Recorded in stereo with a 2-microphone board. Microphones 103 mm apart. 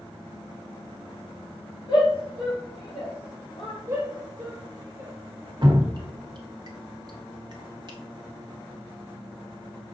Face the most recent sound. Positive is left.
turn(degrees=-45)  # may be behind; listen again after turning